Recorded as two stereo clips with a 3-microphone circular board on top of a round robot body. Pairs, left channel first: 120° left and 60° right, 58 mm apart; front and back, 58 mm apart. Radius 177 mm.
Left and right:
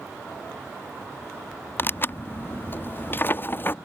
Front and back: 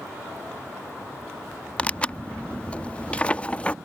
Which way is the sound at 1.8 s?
70° left.